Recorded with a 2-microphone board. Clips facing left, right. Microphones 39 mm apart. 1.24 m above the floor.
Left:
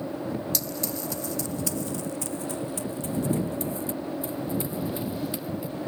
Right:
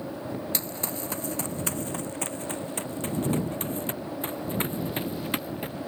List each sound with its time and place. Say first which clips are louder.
0.5 s running footsteps: left 2 dB; 35° right (ahead or behind); by 5.8 s 55° right (ahead or behind)